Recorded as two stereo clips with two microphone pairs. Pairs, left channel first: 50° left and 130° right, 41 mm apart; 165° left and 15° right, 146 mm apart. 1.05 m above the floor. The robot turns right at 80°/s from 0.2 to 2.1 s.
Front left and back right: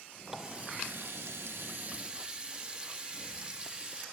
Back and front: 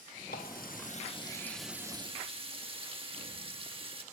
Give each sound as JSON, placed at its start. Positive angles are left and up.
{"t": 0.3, "sound": "a running tap", "azimuth_deg": 150, "distance_m": 1.2}